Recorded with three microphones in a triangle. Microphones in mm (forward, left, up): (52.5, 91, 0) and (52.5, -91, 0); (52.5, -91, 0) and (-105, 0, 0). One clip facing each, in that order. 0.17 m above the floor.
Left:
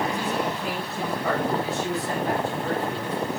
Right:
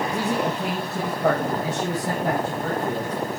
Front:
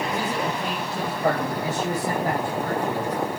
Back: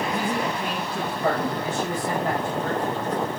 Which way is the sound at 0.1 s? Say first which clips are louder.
Right 3 dB, even; 110° right.